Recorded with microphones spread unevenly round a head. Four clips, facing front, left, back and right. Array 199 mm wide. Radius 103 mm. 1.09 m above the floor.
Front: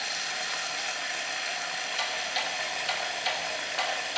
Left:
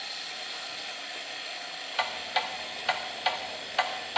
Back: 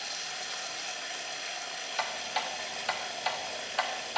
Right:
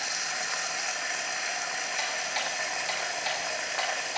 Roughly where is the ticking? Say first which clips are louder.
Left 6 dB, back 2 dB; left.